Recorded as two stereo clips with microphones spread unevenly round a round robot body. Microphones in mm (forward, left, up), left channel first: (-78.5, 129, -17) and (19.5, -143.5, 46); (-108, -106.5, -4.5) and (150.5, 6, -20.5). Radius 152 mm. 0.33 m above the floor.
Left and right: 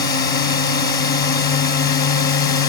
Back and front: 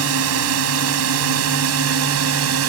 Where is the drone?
45° left.